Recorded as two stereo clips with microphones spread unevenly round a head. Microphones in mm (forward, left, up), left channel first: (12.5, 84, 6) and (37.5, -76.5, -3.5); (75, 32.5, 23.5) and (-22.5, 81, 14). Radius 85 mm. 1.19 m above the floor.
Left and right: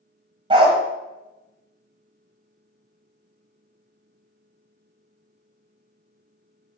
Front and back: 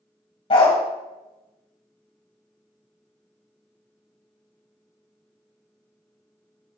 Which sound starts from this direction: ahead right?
A dog barking, at 0.5 s.